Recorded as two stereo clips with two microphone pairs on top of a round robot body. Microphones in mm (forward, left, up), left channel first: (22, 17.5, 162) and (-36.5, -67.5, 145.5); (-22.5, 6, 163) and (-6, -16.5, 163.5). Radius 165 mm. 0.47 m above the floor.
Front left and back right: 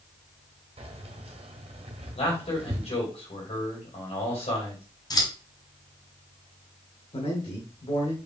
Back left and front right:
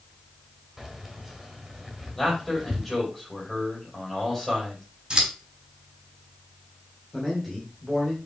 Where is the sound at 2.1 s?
45° left, 4 m.